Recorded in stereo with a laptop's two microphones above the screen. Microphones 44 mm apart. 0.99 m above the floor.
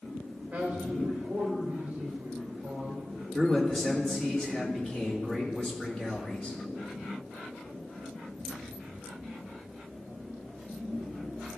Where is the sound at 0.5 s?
35° right (ahead or behind), 3 m.